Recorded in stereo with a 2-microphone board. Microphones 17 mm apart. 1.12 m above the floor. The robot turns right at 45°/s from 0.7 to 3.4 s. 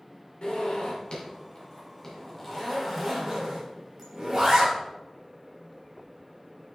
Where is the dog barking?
I don't hear a dog barking.